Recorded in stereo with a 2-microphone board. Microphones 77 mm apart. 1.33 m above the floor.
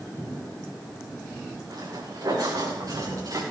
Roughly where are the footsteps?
Right.